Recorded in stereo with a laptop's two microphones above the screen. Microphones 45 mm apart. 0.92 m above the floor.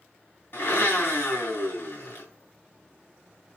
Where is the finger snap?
I don't hear a finger snap.